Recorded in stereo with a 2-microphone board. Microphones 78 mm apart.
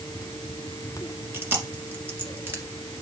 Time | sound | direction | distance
1.3 | chewing | 30° right (ahead or behind) | 1.8 m